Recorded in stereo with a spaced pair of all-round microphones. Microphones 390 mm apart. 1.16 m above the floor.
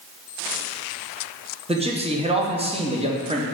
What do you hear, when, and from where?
1.7 s a man speaking: 15° right (ahead or behind), 0.7 m